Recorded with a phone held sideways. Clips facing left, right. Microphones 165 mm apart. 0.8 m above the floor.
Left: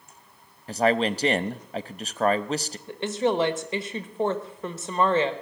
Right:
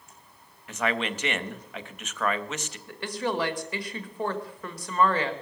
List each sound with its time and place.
0.7 s a man speaking: 35° left (ahead or behind), 0.6 m
2.9 s a woman speaking: 25° left (ahead or behind), 1.1 m